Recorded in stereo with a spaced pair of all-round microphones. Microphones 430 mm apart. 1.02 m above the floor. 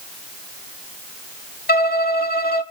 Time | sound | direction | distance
1.7 | a violin | 25° left (ahead or behind) | 1.1 m